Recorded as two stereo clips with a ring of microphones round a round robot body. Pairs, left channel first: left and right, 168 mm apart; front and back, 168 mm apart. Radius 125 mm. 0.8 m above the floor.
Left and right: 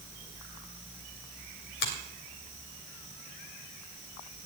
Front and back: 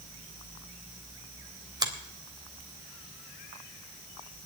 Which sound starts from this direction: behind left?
A finger snap, at 1.8 s.